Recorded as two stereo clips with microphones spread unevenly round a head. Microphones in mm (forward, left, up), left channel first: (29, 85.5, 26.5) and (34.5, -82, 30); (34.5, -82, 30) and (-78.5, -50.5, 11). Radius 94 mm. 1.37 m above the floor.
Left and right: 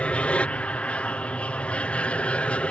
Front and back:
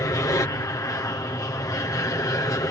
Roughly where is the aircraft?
Ahead.